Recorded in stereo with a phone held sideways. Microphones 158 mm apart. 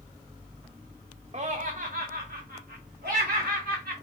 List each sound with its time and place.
1.3 s laughter: 45° right (ahead or behind), 0.5 m; by 4.0 s 85° right, 1.7 m